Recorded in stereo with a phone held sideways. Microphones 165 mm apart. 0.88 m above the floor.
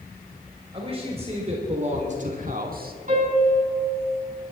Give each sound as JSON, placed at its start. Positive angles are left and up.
{"t": 0.7, "sound": "a man speaking", "side_deg": -35, "distance_m": 3.5}
{"t": 3.1, "sound": "a piano", "side_deg": -50, "distance_m": 6.5}